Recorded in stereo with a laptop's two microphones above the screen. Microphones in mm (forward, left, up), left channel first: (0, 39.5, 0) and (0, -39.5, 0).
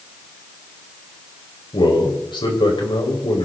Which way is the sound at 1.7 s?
80° left.